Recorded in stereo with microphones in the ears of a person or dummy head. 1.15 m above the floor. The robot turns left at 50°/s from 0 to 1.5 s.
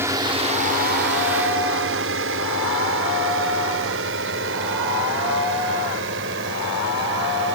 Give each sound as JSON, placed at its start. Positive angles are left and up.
{"t": 0.0, "sound": "a drone", "side_deg": -15}